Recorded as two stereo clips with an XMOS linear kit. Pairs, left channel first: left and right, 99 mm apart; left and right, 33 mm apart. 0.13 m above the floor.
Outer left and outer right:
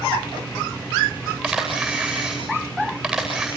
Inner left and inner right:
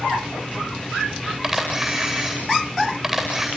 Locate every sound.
1.4 s a camera shutter: centre (ahead or behind), 9.5 m